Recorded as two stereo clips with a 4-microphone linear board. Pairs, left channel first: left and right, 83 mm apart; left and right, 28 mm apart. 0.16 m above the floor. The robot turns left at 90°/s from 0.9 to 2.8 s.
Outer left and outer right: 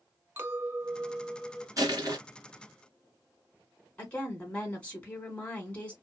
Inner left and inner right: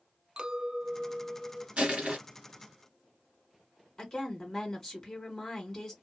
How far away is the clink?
About 0.9 m.